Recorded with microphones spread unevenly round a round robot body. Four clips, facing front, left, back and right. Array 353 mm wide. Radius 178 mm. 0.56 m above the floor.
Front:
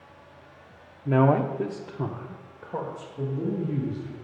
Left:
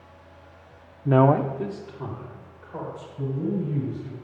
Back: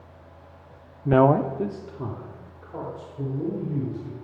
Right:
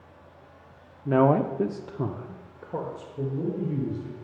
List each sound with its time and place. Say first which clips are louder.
1.1 s a man speaking: left 2 dB, back 3 dB; 145° left, 0.7 m; by 4.2 s 65° right, 3 m